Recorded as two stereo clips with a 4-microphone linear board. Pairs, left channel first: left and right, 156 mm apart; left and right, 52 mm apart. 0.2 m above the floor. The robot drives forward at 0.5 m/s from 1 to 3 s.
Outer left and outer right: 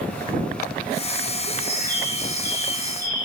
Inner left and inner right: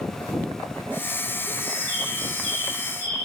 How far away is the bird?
About 1.6 m.